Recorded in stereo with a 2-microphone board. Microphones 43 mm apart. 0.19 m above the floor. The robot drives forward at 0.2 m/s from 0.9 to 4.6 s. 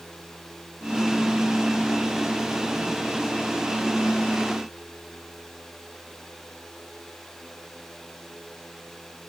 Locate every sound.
Only background noise.